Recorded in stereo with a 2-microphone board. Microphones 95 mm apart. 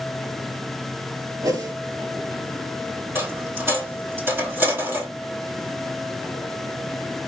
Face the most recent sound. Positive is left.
turn(degrees=-25)  # may be behind; listen again after turning